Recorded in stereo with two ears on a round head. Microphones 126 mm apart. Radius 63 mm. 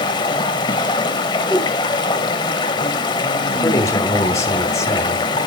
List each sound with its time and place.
0.0 s running water: 30° left (ahead or behind), 0.7 m
1.5 s a whoosh: centre (ahead or behind), 1.2 m
3.5 s a man speaking: 20° left (ahead or behind), 1.1 m